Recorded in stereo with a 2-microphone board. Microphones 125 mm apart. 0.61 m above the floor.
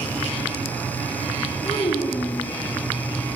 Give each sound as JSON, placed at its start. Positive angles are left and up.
{"t": 1.6, "sound": "a child speaking", "side_deg": 40, "distance_m": 3.0}